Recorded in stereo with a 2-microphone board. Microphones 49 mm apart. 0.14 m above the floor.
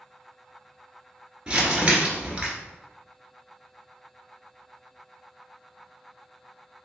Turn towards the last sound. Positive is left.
turn(degrees=-20)  # may be behind; listen again after turning